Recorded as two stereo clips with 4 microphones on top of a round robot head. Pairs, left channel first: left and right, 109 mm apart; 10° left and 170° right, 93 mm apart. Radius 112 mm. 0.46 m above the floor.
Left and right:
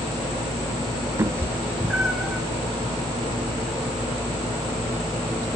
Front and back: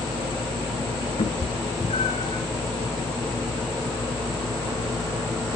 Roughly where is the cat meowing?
Ahead right.